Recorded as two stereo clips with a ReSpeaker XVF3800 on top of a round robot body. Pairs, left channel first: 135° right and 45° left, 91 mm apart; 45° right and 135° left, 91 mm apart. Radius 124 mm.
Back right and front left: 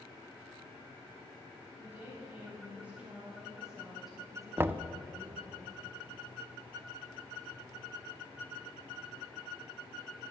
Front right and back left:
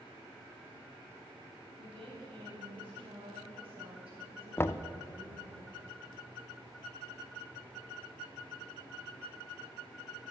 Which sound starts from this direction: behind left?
A woman speaking, at 1.8 s.